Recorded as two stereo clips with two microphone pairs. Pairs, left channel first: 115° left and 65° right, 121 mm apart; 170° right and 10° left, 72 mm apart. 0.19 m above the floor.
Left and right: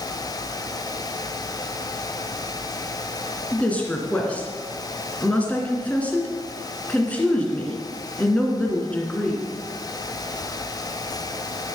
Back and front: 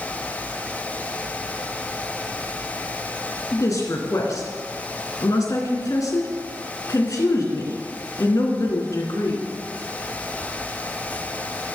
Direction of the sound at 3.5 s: 170° right.